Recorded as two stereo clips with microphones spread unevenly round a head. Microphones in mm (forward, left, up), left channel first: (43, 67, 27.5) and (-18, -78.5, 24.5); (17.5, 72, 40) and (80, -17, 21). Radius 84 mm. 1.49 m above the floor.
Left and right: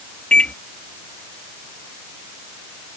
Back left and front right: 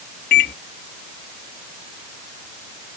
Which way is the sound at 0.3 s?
150° left.